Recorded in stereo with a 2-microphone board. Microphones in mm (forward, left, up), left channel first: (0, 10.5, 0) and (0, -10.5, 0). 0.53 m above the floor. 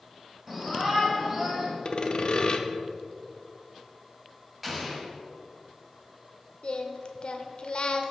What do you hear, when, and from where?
0.5 s a shout: 15° right (ahead or behind), 2.5 m; by 1.7 s 35° right (ahead or behind), 2.5 m
1.9 s sawing: 45° left (ahead or behind), 0.6 m
4.6 s an explosion: 5° right (ahead or behind), 2.0 m
6.6 s singing: 55° left (ahead or behind), 0.7 m